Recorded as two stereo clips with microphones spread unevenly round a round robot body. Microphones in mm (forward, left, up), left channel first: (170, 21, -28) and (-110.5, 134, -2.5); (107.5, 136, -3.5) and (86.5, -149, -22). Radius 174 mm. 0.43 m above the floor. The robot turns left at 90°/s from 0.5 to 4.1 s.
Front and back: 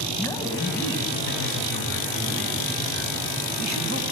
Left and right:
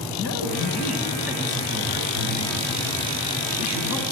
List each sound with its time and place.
0.2 s a man speaking: 60° left, 3 m; by 4.0 s 100° left, 3 m